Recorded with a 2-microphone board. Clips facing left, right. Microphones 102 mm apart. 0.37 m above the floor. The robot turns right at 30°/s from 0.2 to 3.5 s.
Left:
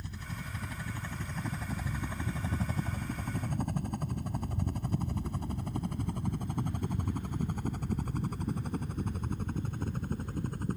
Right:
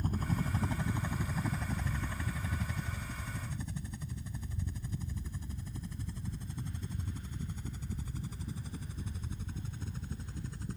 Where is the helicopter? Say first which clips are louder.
Right 8 dB; 45° right (ahead or behind); by 10.8 s 55° left (ahead or behind).